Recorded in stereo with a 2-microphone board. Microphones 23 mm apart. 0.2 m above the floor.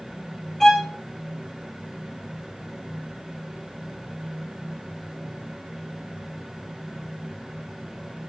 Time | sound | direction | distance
0.6 | a violin | 10° left (ahead or behind) | 3 m